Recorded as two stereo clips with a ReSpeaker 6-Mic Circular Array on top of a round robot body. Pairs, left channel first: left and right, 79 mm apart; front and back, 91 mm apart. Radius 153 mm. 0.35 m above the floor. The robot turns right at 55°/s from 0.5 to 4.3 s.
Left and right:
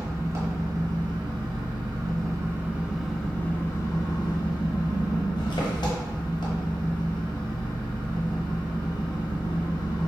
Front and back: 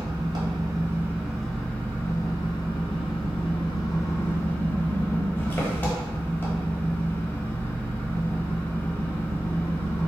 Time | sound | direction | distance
0.0 | an engine running | 140° right | 1.0 m